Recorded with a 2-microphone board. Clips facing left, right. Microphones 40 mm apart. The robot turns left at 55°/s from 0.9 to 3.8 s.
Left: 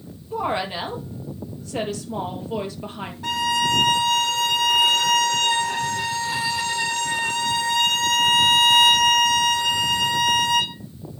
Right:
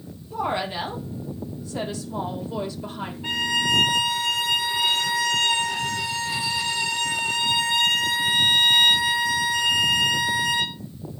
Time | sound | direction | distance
0.3 | a woman speaking | 155° left | 3.5 m
3.2 | a violin | 90° left | 1.9 m